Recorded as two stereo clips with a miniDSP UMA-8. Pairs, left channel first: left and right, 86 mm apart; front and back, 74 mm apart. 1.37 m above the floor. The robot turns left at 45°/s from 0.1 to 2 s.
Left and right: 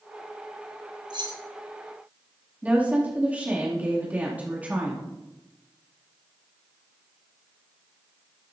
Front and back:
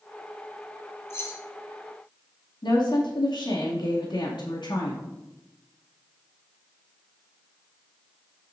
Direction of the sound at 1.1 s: 55° right.